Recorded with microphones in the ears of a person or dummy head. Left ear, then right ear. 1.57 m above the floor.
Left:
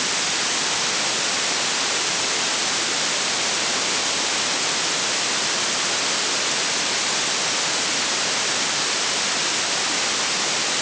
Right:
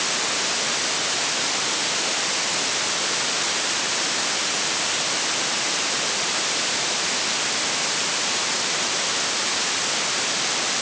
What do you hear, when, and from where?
Only background noise.